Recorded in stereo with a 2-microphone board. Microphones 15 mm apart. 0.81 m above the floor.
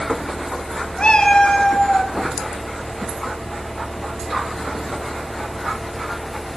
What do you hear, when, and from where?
1.0 s a cat meowing: 70° left (ahead or behind), 1.2 m; by 2.1 s 45° left (ahead or behind), 1.7 m